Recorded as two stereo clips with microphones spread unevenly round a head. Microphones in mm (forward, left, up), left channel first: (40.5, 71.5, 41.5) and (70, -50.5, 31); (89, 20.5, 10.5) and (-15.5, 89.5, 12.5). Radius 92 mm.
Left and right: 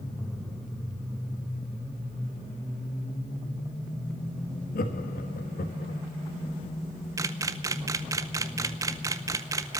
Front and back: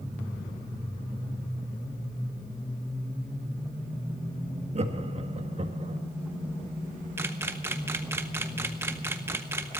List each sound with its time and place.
4.8 s laughter: 110° left, 1.7 m
7.2 s a camera shutter: 140° right, 0.6 m